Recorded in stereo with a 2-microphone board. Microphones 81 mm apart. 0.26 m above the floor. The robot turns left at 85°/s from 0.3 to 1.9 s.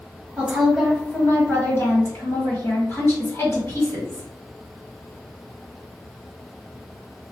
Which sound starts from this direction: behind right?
A woman speaking, at 0.4 s.